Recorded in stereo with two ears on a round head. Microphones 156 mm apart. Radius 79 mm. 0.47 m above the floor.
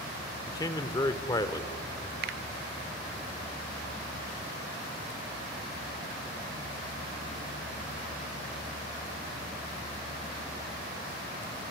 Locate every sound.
0.5 s a man speaking: 20° left (ahead or behind), 1.1 m
2.2 s a finger snap: 60° right (ahead or behind), 0.9 m